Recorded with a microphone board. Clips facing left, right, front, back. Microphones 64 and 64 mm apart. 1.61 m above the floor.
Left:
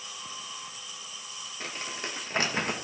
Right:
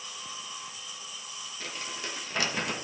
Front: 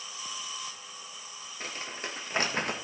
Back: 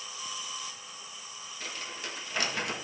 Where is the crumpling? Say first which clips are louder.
Left 2 dB, front 2 dB; 40° left, 1.2 m.